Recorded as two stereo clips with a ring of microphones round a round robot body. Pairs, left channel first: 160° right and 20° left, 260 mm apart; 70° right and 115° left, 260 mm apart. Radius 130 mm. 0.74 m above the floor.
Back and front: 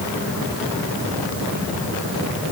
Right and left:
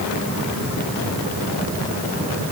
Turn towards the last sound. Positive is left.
No sound to turn to.